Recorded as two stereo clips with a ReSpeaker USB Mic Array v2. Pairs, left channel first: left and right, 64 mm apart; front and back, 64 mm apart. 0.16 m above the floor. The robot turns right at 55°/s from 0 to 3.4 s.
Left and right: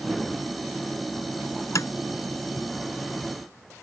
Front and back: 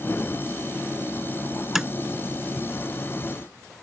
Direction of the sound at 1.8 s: 100° left.